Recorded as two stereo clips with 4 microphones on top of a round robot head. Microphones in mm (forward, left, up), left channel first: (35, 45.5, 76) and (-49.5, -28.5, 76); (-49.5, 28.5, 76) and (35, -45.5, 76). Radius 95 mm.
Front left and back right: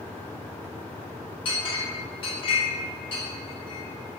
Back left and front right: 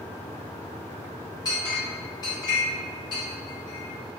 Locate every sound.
1.4 s a clink: 80° left, 0.6 m